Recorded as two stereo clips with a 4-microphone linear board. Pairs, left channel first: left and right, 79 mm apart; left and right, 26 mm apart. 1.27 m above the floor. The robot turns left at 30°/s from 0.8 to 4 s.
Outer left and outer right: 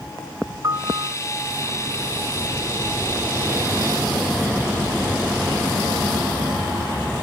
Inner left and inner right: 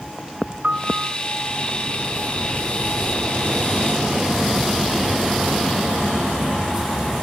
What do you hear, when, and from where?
0.6 s a piano: 45° right (ahead or behind); by 1.2 s 55° right (ahead or behind)